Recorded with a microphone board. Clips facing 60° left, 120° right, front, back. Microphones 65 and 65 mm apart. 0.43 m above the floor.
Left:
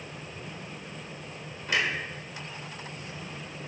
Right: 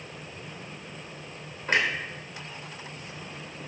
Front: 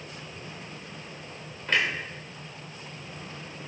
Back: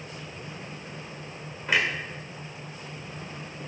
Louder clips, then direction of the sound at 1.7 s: Right 3 dB, back 1 dB; 105° right.